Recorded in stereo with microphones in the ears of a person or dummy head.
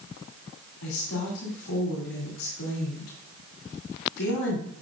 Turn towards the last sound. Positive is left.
turn(degrees=85)